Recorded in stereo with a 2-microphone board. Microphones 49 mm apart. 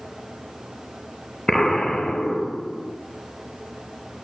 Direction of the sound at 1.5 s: 15° left (ahead or behind).